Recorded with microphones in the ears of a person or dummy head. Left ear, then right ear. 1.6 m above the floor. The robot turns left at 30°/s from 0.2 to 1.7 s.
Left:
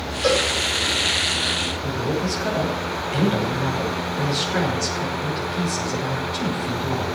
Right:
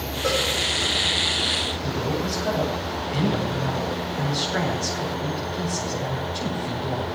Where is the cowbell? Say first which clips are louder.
Left 4 dB; 85° left, 6 m; by 0.5 s 80° left, 6 m.